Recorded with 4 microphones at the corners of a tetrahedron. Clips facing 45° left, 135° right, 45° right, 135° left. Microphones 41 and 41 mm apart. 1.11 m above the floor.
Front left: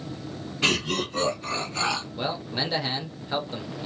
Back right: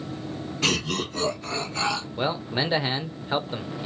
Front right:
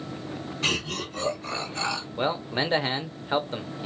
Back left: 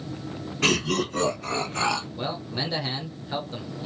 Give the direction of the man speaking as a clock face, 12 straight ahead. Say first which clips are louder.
Back right 3 dB, front right 4 dB; 3 o'clock.